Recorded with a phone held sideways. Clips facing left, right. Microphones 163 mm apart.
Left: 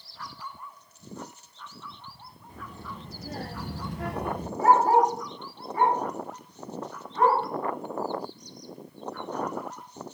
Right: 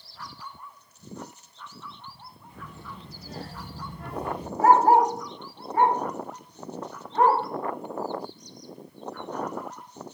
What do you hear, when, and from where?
2.5 s a child speaking: 35° left (ahead or behind), 1.6 m; by 4.5 s 40° left (ahead or behind), 0.6 m
4.6 s a dog barking: 75° right (ahead or behind), 2.5 m